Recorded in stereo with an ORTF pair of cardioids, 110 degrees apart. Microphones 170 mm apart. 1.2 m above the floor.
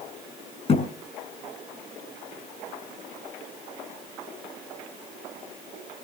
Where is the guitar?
I don't hear a guitar.